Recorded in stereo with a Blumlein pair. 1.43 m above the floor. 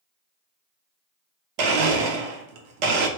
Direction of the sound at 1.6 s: 45° right.